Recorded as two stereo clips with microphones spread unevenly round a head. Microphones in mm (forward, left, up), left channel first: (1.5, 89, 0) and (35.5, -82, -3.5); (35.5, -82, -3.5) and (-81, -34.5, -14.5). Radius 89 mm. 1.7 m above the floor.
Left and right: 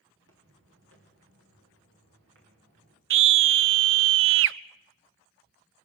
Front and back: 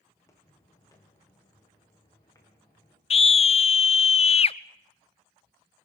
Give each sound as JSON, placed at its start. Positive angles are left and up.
{"t": 0.1, "sound": "footsteps", "azimuth_deg": -85, "distance_m": 4.5}
{"t": 3.1, "sound": "a scream", "azimuth_deg": -65, "distance_m": 0.6}